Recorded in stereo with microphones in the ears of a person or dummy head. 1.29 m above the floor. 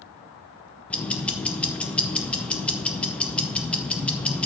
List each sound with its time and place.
0.9 s ticking: 5° left (ahead or behind), 0.7 m